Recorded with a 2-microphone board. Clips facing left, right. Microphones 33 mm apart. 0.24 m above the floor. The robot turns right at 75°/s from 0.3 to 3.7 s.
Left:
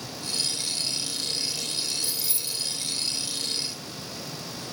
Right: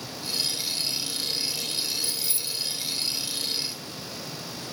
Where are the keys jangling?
50° right (ahead or behind), 1.0 m; by 2.8 s 30° right (ahead or behind), 1.0 m.